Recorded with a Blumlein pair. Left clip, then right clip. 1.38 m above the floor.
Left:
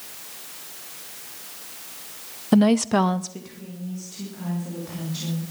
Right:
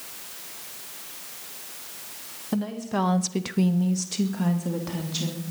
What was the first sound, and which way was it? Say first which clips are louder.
A woman speaking: left 9 dB; 65° left.